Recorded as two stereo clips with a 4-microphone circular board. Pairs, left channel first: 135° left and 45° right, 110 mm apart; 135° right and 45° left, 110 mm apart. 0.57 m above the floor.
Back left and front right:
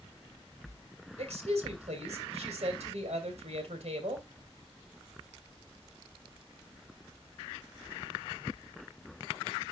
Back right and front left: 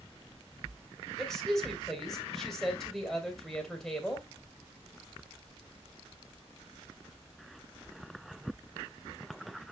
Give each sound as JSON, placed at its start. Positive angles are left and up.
{"t": 1.2, "sound": "a woman speaking", "azimuth_deg": -45, "distance_m": 2.5}